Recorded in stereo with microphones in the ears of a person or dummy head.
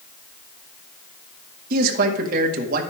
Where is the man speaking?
55° right (ahead or behind), 2 m.